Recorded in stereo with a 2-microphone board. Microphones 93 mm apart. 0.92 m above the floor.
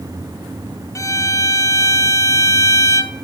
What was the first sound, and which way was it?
A violin, 35° left (ahead or behind).